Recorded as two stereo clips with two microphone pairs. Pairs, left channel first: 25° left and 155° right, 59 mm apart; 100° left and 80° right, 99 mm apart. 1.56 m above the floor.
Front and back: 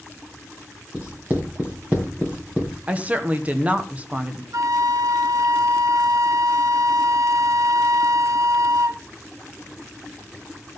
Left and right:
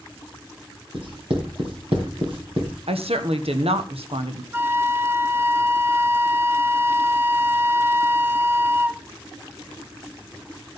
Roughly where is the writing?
Right.